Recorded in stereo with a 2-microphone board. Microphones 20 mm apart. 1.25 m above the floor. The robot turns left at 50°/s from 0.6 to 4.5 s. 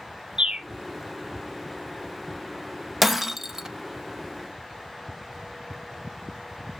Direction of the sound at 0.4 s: 40° right (ahead or behind).